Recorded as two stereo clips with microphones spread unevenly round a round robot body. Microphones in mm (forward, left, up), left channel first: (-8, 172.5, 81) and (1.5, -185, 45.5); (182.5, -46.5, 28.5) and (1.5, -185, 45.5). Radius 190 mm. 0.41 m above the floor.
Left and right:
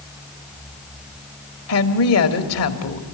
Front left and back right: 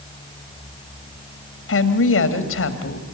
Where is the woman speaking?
45° left, 2.5 m.